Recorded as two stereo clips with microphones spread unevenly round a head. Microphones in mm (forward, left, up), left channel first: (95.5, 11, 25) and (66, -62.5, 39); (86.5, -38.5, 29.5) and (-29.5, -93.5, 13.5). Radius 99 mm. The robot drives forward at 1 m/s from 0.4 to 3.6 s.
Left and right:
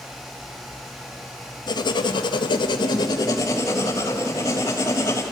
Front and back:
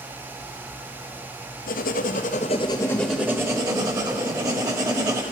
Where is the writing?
45° left, 1.4 m; by 5.2 s 135° left, 1.4 m.